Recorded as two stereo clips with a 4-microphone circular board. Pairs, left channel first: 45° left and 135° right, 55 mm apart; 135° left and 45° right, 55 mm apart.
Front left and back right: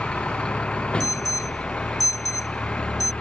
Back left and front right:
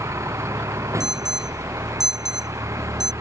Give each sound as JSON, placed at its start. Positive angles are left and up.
{"t": 0.0, "sound": "a vehicle", "azimuth_deg": -25}
{"t": 1.0, "sound": "an alarm", "azimuth_deg": 35}